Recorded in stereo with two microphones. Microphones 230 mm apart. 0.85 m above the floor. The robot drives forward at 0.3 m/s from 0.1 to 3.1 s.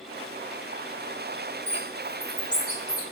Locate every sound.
1.7 s a bird: 25° left (ahead or behind), 0.6 m; by 3.0 s 15° left (ahead or behind), 1.0 m